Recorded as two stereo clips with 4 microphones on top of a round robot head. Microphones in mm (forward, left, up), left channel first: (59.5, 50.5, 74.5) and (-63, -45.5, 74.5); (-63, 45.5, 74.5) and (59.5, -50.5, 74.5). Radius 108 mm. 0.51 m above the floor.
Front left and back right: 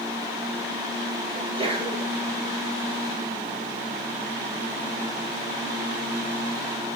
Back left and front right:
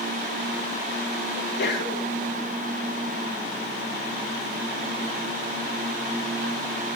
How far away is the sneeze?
About 10 m.